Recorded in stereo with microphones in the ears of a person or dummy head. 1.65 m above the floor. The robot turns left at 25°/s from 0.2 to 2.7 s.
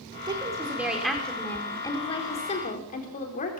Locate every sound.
0.2 s a woman speaking: 160° right, 4 m; by 3.6 s 140° left, 4 m